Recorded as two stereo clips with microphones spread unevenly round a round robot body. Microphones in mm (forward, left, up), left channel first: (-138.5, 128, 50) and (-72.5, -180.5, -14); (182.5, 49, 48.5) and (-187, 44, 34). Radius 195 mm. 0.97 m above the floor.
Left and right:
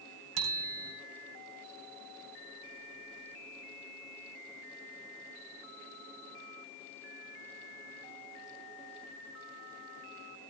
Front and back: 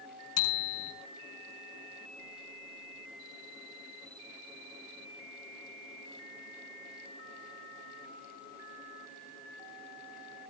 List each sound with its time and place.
0.4 s a bicycle bell: 45° right, 7.5 m